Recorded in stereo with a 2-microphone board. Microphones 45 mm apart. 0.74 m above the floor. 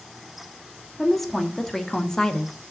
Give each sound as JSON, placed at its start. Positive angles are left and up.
{"t": 1.0, "sound": "a woman speaking", "side_deg": 5, "distance_m": 1.7}